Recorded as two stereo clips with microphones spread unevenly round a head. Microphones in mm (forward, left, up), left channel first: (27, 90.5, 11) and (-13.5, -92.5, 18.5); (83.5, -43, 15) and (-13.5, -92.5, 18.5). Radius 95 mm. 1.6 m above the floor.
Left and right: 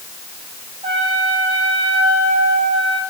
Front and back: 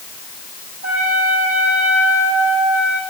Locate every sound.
0.8 s a trumpet: 165° right, 8.5 m